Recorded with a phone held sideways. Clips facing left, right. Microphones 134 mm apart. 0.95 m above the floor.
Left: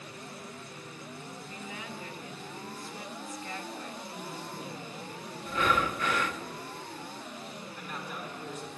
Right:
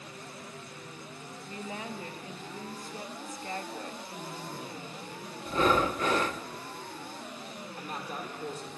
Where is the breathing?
35° right (ahead or behind), 0.6 m.